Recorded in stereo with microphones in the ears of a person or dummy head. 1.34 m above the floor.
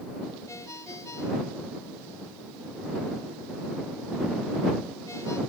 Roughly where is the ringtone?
Centre.